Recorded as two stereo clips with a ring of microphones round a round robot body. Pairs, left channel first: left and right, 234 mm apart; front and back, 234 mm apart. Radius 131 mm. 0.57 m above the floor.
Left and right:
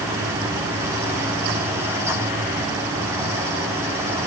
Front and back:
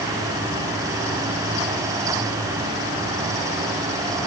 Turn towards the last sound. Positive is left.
No sound to turn to.